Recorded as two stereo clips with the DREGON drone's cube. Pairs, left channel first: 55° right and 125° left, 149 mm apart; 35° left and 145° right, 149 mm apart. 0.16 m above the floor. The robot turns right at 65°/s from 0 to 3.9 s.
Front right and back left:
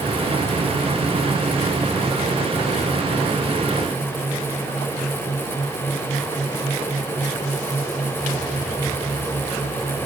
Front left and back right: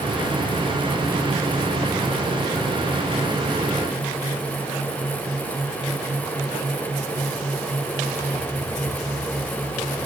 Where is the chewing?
No chewing in this recording.